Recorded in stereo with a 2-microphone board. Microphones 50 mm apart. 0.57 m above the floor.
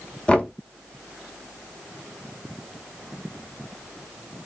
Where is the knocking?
20° left (ahead or behind), 0.6 m.